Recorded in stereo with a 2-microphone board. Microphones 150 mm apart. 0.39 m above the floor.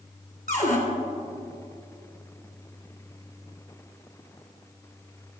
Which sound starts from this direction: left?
A cupboard door, at 0.5 s.